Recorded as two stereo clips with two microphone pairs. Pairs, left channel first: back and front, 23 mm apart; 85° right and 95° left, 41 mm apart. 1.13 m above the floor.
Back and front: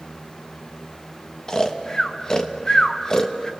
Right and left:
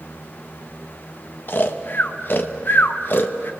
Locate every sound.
1.5 s snoring: 120° right, 1.1 m